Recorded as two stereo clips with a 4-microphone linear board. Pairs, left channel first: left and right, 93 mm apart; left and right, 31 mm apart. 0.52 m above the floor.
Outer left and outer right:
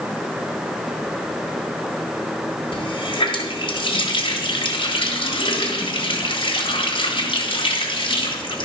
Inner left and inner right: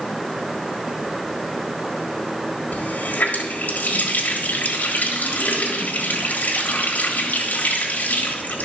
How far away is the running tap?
About 1.6 m.